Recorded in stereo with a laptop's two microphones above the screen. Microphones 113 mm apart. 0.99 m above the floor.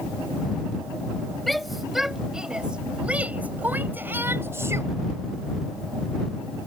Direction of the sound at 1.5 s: Centre (ahead or behind).